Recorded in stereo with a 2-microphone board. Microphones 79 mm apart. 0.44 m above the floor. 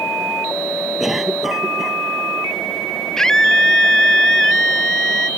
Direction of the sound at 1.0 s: 5° right (ahead or behind).